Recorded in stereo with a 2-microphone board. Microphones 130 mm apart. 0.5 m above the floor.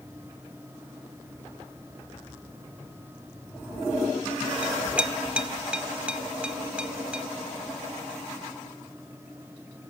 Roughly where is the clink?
Centre.